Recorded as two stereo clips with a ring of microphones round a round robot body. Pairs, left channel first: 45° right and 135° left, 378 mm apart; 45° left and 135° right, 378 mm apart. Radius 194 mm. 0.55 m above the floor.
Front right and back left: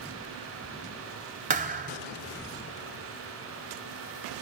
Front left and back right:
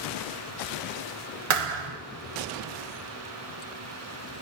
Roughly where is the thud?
Behind right.